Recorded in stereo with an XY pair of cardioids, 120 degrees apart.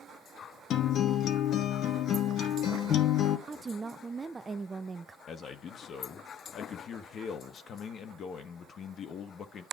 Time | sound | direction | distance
0.7 | a guitar | 60° left | 1.0 m
3.5 | a woman speaking | 20° right | 0.6 m
5.3 | a man speaking | 50° left | 1.2 m